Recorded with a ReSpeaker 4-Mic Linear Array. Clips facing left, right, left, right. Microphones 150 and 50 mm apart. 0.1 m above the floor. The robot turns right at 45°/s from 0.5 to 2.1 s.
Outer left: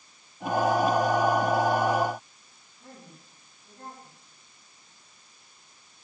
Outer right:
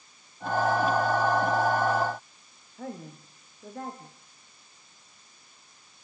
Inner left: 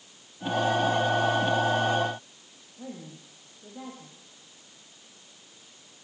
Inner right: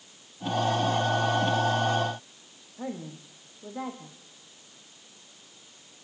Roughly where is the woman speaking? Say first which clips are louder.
Outer right 10 dB, inner right 5 dB; right.